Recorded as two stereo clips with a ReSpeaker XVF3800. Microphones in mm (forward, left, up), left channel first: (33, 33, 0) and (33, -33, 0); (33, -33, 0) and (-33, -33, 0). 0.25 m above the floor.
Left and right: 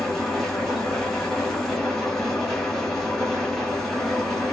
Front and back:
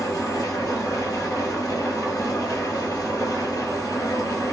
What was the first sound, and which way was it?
An engine running, 5° left.